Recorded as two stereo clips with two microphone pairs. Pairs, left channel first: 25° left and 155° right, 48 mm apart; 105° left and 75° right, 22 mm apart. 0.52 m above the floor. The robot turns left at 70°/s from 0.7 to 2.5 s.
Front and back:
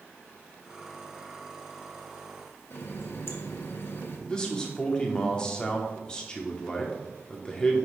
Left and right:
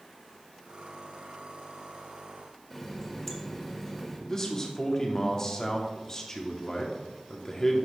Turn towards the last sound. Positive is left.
turn(degrees=70)